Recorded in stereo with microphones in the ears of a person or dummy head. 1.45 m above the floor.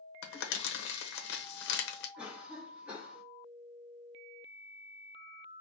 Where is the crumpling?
65° left (ahead or behind), 0.9 m.